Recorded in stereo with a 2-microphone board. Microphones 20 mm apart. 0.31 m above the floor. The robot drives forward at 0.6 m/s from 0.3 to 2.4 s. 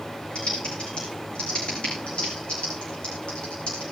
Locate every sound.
0.3 s typing on a keyboard: 55° left (ahead or behind), 7.5 m; by 3.8 s 65° left (ahead or behind), 6.5 m